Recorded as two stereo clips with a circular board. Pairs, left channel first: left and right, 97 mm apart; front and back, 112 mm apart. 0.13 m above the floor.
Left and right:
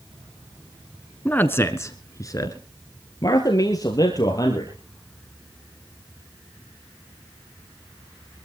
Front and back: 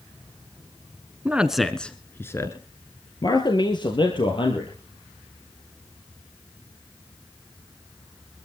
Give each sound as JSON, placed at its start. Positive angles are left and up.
{"t": 1.2, "sound": "a man speaking", "azimuth_deg": 130, "distance_m": 1.1}